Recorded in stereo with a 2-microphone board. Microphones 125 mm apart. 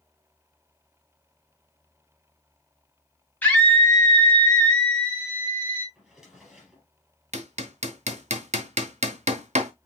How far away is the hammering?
About 0.8 m.